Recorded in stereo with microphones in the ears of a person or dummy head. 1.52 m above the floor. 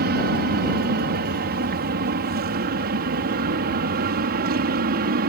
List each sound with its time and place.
0.0 s an aircraft: 50° right (ahead or behind)